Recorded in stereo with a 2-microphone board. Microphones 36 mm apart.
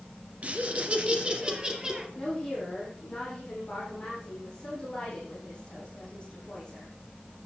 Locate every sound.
0.4 s laughter: 40° right (ahead or behind), 2 m; by 2.0 s 20° right (ahead or behind), 2.5 m
2.1 s a woman speaking: 20° left (ahead or behind), 7.5 m